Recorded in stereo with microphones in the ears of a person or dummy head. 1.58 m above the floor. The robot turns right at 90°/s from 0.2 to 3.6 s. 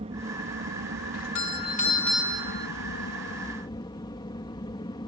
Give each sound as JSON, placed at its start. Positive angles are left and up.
{"t": 0.0, "sound": "an aircraft", "azimuth_deg": -145}
{"t": 1.1, "sound": "a doorbell", "azimuth_deg": 90}